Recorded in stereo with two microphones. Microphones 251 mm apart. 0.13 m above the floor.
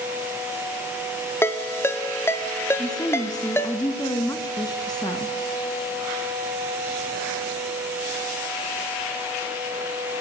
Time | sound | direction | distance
1.4 | a ringtone | 10° left (ahead or behind) | 1.2 m
2.8 | a woman speaking | 15° left (ahead or behind) | 1.5 m